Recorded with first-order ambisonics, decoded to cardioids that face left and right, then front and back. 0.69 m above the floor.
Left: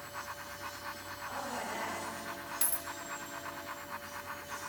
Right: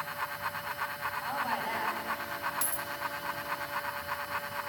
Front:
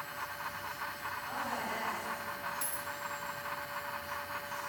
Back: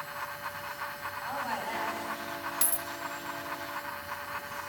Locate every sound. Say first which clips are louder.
1.2 s a woman speaking: right 4 dB, back 4 dB; 135° right, 4.5 m
2.6 s a dropped coin: right 3 dB, back 5 dB; 170° left, 0.6 m